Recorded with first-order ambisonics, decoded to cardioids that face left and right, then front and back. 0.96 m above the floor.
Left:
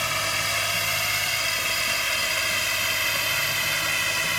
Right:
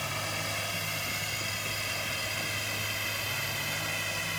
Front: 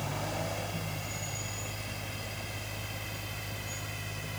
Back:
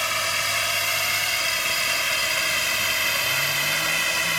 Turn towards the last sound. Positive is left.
turn(degrees=150)